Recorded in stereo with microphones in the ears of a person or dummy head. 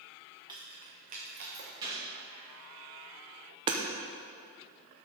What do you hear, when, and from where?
0.5 s keys jangling: 10° right (ahead or behind), 1.1 m; by 1.7 s 40° right (ahead or behind), 1.0 m
1.8 s a gunshot: 30° right (ahead or behind), 2.5 m
3.7 s hammering: 30° right (ahead or behind), 0.7 m